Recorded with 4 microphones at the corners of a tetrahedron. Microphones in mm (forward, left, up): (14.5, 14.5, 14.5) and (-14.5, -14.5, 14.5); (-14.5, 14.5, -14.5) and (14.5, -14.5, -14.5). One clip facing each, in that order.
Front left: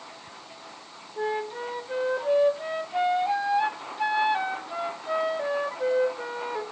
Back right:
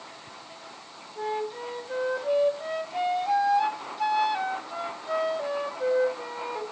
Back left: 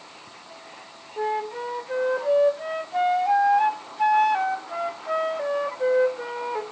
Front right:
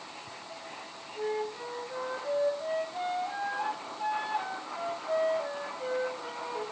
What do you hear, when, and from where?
1.2 s a flute: 120° left, 0.7 m